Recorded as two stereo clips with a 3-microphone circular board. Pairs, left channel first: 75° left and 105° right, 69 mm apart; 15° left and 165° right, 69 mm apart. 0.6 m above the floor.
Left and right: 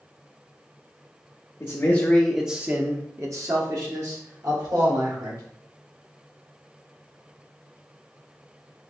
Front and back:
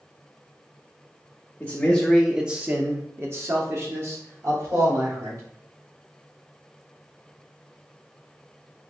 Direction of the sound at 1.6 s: 65° left.